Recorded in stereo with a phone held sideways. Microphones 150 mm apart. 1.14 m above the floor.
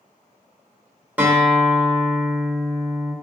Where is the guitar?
10° right (ahead or behind), 0.9 m.